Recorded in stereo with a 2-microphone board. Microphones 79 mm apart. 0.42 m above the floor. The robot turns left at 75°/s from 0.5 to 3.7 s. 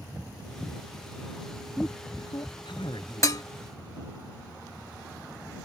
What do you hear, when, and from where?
1.8 s a man speaking: 10° left (ahead or behind); by 3.3 s 50° left (ahead or behind)
3.2 s dishes clattering: 45° left (ahead or behind); by 3.4 s 50° left (ahead or behind)